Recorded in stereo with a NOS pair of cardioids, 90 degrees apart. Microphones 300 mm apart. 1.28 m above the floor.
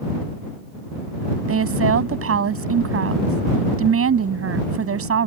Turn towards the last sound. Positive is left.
turn(degrees=-50)